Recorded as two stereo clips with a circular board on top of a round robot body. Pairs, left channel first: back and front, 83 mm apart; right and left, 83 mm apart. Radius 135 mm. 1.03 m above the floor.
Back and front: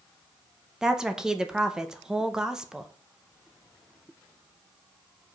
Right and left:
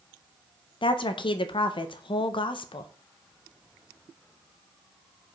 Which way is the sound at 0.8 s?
85° right.